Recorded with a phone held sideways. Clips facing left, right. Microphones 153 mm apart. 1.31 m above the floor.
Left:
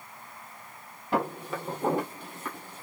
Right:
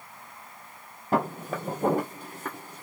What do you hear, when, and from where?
1.1 s footsteps: 45° right (ahead or behind), 1.7 m